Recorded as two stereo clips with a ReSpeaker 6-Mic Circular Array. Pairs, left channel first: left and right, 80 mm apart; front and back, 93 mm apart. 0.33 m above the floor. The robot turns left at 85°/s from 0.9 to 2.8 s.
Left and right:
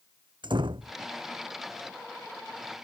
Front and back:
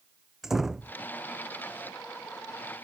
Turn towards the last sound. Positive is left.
turn(degrees=105)